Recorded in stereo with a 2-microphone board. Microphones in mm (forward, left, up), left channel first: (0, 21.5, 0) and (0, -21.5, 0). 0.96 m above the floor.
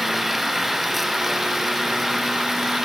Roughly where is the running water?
Centre.